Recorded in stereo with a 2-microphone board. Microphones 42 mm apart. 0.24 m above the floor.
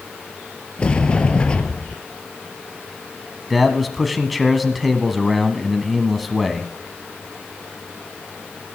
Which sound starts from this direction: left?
A sliding door, at 0.8 s.